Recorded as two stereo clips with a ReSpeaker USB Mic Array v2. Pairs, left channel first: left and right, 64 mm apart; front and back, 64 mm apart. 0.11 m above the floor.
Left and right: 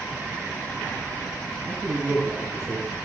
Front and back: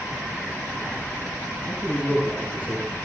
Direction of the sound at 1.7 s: 60° right.